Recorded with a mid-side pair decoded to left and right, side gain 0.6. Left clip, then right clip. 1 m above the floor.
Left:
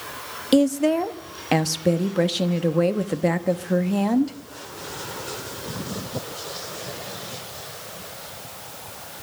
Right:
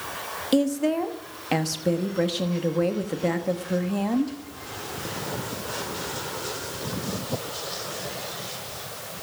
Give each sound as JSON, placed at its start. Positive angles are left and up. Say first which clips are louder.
{"t": 0.5, "sound": "a woman speaking", "louder": "left 4 dB", "azimuth_deg": 25, "distance_m": 1.2}